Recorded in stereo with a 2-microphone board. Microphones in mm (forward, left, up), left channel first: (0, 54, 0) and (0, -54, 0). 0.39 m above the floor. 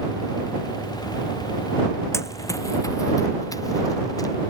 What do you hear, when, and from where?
2.1 s running footsteps: 25° left (ahead or behind); by 4.3 s 35° left (ahead or behind)